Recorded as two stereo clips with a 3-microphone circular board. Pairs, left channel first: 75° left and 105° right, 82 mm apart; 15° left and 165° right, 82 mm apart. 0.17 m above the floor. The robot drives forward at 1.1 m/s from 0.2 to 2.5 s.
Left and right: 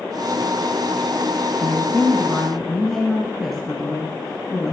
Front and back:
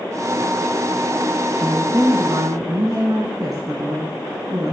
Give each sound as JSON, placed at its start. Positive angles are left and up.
{"t": 1.6, "sound": "a woman speaking", "azimuth_deg": 135, "distance_m": 1.1}